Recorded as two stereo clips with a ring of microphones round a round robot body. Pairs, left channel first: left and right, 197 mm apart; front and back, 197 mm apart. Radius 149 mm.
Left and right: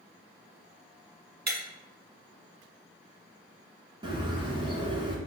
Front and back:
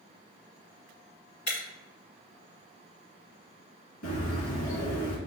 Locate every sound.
1.5 s breaking glass: 50° right, 1.7 m
4.0 s a bird: 25° right, 1.6 m